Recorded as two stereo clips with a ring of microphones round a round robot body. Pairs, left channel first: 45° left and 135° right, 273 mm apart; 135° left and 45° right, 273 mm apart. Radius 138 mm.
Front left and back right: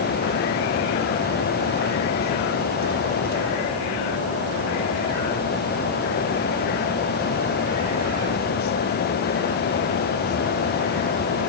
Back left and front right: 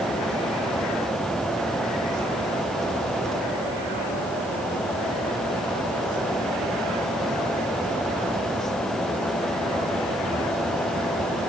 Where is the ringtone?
No ringtone in this recording.